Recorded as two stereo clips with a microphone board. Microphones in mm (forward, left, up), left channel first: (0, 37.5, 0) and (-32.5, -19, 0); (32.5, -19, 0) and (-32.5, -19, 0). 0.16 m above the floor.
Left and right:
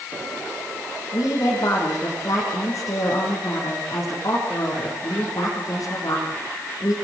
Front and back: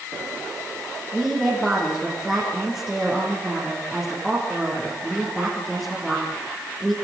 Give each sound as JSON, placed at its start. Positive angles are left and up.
{"t": 1.1, "sound": "a woman speaking", "azimuth_deg": 90, "distance_m": 8.0}